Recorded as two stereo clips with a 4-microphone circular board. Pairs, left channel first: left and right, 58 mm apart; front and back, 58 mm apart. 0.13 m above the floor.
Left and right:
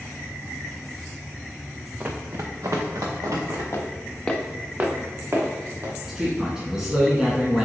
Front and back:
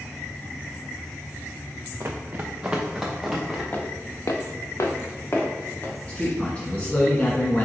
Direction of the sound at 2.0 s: 145° right.